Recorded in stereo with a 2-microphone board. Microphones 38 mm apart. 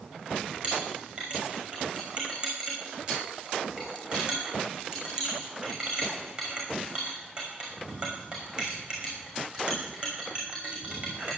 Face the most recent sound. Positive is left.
turn(degrees=-30)  # may be behind; listen again after turning